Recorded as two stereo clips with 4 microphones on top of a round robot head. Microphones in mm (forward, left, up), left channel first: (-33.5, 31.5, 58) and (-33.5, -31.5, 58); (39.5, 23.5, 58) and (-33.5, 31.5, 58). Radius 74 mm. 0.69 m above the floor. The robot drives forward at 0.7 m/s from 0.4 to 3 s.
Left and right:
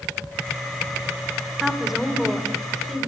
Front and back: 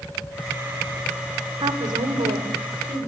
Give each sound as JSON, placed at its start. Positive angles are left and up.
{"t": 1.6, "sound": "a woman speaking", "azimuth_deg": -175, "distance_m": 2.5}